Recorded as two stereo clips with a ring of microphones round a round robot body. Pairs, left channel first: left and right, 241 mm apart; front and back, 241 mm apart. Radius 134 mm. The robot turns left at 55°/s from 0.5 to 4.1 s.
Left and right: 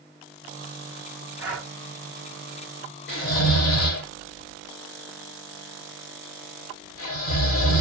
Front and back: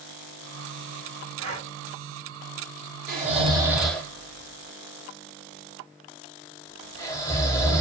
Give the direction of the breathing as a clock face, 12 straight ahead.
6 o'clock.